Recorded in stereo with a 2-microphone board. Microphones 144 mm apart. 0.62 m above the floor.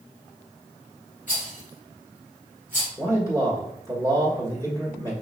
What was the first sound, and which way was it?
A rattle, 60° left (ahead or behind).